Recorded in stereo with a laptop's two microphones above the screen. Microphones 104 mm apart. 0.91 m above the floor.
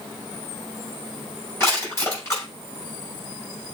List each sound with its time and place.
1.6 s crushing: 25° left (ahead or behind), 6 m